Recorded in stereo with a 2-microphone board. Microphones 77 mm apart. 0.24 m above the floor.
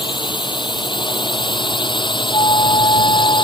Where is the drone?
80° left.